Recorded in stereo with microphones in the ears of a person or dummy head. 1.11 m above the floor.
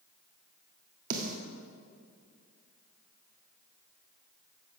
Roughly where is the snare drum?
Right.